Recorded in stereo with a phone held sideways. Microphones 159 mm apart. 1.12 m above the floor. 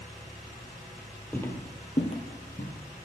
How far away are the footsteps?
About 1.7 m.